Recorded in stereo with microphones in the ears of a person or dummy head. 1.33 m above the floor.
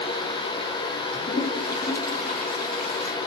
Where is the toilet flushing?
55° left (ahead or behind), 1.1 m.